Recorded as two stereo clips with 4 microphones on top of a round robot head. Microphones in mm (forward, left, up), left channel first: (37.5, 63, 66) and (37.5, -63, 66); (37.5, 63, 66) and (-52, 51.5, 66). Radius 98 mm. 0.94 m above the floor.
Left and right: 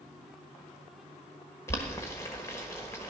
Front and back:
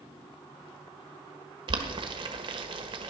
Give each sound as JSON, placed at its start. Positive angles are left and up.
{"t": 1.7, "sound": "boiling", "azimuth_deg": 165, "distance_m": 1.2}